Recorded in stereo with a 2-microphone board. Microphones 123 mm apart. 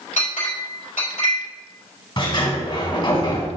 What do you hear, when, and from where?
0.2 s a clink: 85° left, 3 m
2.2 s a sliding door: 40° left (ahead or behind), 1.9 m